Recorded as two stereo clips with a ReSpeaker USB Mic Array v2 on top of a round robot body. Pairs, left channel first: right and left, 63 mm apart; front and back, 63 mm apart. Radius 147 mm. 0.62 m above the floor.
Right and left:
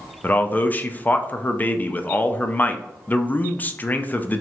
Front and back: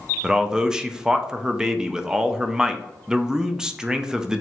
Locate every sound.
0.2 s a man speaking: 110° right, 0.5 m